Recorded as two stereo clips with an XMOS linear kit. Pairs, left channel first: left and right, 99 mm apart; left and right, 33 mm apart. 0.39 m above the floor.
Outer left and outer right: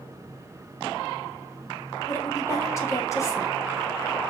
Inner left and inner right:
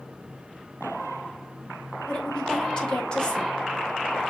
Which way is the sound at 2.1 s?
30° left (ahead or behind).